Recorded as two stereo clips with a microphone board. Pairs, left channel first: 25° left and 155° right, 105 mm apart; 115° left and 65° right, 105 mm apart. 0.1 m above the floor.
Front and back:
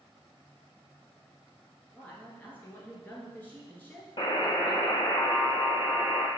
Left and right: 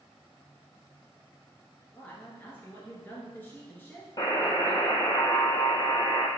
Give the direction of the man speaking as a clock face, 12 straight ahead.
10 o'clock.